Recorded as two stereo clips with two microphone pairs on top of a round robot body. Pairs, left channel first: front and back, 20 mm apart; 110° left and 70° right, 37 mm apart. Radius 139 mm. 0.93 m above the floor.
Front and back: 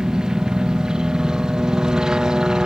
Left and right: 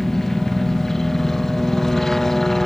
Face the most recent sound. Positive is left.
turn(degrees=-160)